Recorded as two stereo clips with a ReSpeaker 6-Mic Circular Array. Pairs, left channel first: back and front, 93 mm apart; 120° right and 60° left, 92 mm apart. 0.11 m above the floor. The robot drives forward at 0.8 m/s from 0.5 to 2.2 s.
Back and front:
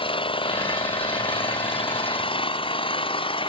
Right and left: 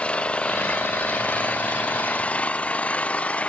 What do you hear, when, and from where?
0.0 s an engine running: 160° left; by 3.5 s 165° left